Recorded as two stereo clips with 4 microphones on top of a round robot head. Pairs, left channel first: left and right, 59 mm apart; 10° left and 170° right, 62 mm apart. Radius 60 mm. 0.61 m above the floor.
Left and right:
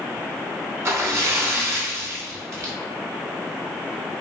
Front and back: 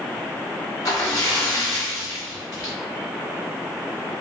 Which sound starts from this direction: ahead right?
A splash, at 0.8 s.